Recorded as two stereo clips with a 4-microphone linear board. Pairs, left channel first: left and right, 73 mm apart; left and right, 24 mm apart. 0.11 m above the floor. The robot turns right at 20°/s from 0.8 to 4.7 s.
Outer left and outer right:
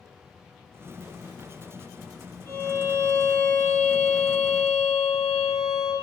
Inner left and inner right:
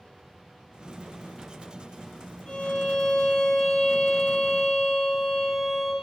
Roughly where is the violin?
Behind left.